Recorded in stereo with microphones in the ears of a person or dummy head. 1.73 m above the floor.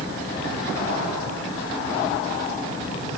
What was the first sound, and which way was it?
Only background noise.